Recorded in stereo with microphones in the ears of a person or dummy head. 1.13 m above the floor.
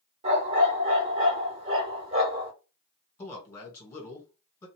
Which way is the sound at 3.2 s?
25° left (ahead or behind).